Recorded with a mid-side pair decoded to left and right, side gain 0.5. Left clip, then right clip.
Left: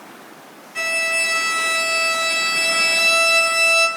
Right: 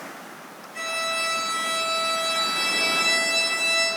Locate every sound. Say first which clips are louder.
0.8 s a violin: left 7 dB; 45° left, 2.5 m